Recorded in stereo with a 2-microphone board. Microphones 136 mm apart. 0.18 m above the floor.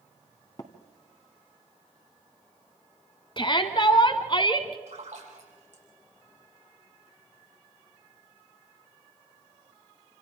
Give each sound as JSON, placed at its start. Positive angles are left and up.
{"t": 0.6, "sound": "tapping", "side_deg": 35, "distance_m": 1.6}
{"t": 3.4, "sound": "a shout", "side_deg": 40, "distance_m": 1.3}
{"t": 4.9, "sound": "a splash", "side_deg": -70, "distance_m": 5.5}